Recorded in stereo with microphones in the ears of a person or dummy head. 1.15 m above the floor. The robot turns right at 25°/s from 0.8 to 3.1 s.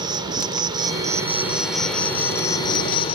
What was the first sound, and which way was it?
An insect, 25° right.